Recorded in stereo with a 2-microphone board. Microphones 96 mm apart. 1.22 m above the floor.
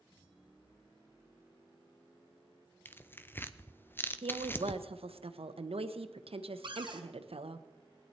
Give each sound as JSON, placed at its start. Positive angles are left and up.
{"t": 2.9, "sound": "tearing paper", "side_deg": 20, "distance_m": 0.5}
{"t": 4.2, "sound": "a woman speaking", "side_deg": -80, "distance_m": 0.9}
{"t": 6.6, "sound": "a cupboard door", "side_deg": -60, "distance_m": 1.7}